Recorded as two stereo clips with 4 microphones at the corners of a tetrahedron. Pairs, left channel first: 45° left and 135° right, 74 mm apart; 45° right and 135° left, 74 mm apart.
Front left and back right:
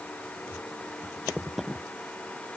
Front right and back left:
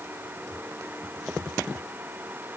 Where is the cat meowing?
I don't hear a cat meowing.